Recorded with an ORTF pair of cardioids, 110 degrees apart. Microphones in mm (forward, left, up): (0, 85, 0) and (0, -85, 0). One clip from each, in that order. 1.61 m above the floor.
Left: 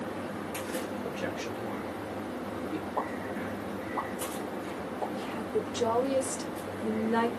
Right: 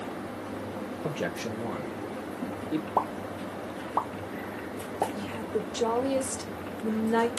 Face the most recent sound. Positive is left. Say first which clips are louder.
# even
turn(degrees=-10)